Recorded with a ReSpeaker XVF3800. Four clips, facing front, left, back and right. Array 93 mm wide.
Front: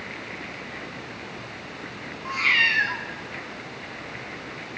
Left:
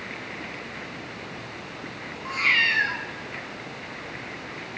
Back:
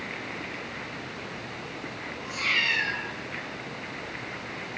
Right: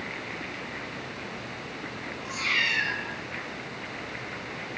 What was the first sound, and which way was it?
A cat meowing, 40° left.